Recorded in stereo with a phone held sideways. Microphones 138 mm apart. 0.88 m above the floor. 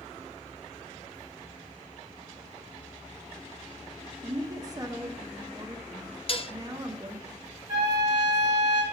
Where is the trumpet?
25° right (ahead or behind), 3 m.